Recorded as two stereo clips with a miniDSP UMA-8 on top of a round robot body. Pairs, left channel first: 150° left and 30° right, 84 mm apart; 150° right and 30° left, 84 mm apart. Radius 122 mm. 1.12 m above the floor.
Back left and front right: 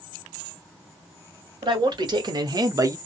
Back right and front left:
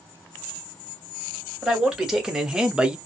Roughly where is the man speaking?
Ahead right.